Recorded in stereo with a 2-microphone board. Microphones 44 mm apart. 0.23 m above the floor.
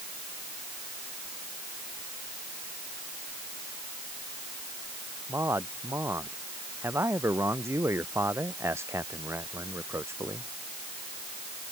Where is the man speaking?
85° right.